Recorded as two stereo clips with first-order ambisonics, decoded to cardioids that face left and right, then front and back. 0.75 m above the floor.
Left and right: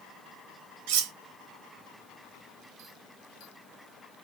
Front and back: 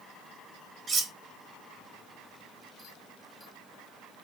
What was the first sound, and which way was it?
Cutlery clinking, 110° right.